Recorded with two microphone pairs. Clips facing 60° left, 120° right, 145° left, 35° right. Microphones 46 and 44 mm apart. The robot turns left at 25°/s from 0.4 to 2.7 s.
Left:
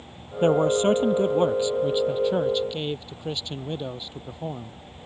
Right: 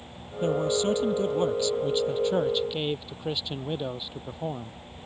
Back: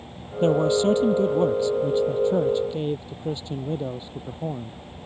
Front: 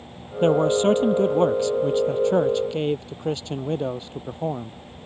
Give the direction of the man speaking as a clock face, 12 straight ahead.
11 o'clock.